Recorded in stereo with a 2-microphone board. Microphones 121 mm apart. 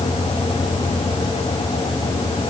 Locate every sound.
Only background noise.